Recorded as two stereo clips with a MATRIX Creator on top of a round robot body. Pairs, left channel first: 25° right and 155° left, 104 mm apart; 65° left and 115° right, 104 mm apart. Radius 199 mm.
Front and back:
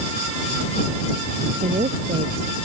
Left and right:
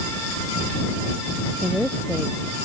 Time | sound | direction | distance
1.6 | a woman speaking | 165° left | ?